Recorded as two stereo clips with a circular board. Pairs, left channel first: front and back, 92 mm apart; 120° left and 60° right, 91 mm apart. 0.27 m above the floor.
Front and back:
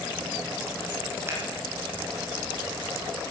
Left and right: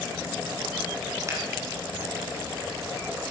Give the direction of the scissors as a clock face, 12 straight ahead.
4 o'clock.